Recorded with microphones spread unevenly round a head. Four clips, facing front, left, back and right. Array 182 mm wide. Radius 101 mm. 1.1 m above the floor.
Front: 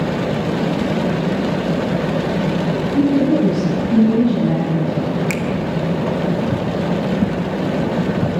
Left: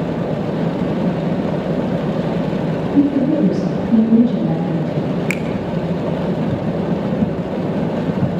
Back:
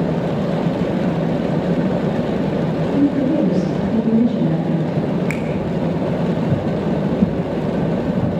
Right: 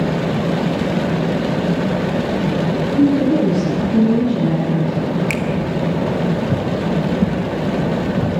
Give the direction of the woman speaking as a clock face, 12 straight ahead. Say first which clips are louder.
Even, front 2 dB; 10 o'clock.